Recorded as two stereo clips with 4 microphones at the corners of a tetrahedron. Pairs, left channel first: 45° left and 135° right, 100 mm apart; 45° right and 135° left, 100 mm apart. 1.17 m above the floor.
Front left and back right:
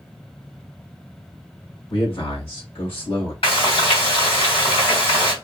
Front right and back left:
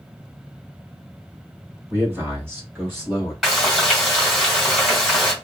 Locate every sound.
1.9 s a man speaking: 70° left, 2.5 m
3.4 s frying: 45° left, 1.9 m